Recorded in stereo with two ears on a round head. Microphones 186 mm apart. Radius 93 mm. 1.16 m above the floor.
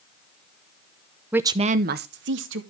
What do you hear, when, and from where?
1.3 s a woman speaking: 5° right (ahead or behind), 0.6 m; by 2.6 s 65° right (ahead or behind), 1.2 m